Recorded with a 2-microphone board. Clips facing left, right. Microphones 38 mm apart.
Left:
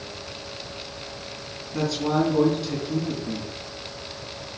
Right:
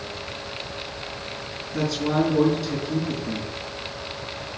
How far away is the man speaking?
About 3.5 m.